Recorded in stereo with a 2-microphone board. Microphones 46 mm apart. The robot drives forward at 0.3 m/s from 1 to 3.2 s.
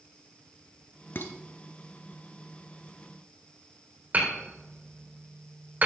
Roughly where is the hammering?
Right.